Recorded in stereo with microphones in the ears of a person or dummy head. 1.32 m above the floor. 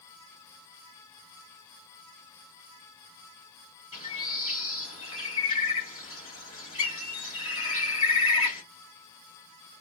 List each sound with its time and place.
3.9 s a bird: 30° left (ahead or behind), 1.2 m